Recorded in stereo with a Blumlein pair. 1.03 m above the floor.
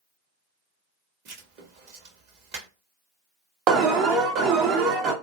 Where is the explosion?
I don't hear an explosion.